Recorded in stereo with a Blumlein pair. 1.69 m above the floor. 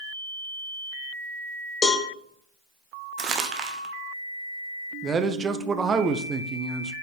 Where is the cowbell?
20° left, 1.3 m.